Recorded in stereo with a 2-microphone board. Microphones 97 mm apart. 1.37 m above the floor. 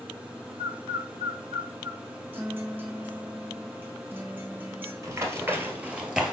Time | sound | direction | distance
0.6 | a bird | 45° right (ahead or behind) | 1.5 m
2.3 | a guitar | 20° right (ahead or behind) | 1.3 m
5.0 | running footsteps | 30° right (ahead or behind) | 1.5 m